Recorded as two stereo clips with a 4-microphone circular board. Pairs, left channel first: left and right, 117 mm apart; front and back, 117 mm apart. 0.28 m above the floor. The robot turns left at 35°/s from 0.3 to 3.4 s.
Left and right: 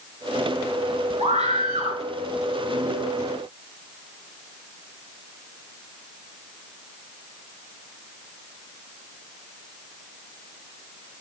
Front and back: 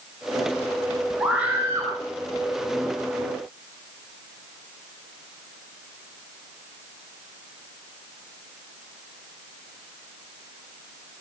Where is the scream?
95° right, 4.5 m; by 1.9 s 120° right, 4.5 m.